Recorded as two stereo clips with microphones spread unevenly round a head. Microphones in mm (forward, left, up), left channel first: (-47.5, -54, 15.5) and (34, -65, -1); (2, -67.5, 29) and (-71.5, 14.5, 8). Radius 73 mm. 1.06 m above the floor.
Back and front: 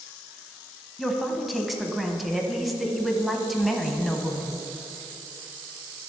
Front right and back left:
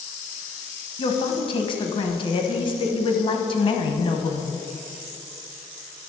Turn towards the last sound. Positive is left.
turn(degrees=-90)